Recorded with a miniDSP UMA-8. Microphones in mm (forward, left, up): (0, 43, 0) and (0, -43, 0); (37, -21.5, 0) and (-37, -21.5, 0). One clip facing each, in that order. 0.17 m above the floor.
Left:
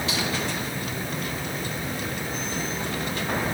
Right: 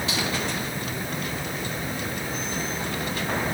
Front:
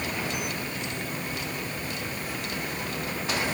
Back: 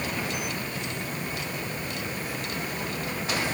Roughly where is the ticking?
I don't hear ticking.